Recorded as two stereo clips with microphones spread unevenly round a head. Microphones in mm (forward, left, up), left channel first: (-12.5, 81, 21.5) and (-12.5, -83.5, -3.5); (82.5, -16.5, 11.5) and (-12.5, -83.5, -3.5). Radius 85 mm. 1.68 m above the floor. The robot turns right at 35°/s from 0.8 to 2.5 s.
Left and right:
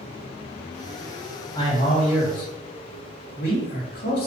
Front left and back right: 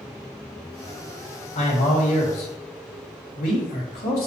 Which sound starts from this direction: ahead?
A man speaking, at 1.6 s.